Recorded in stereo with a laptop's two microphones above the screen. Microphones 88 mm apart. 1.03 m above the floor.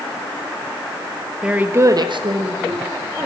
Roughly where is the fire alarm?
I don't hear a fire alarm.